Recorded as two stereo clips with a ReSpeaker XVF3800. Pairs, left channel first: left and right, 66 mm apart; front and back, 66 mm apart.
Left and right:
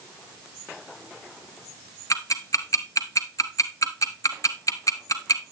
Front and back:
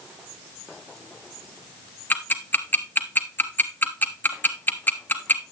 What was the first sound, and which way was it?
Ticking, 60° left.